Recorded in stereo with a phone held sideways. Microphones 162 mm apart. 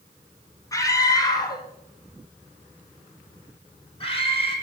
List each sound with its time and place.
0.7 s a scream: 20° left (ahead or behind), 3 m; by 4.5 s 35° left (ahead or behind), 5.5 m